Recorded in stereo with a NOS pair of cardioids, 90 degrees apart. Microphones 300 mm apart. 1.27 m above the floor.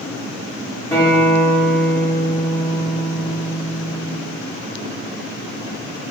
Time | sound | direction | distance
0.9 | a guitar | 10° left | 1.1 m